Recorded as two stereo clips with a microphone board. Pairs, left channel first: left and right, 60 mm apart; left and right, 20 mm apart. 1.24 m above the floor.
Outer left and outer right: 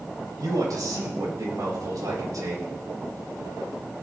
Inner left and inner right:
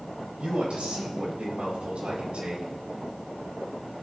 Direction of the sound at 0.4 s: 75° right (ahead or behind).